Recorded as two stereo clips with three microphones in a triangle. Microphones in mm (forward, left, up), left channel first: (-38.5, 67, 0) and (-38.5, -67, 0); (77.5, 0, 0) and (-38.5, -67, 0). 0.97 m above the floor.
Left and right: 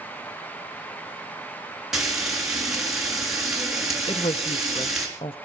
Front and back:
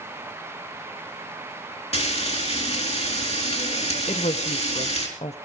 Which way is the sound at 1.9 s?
5° right.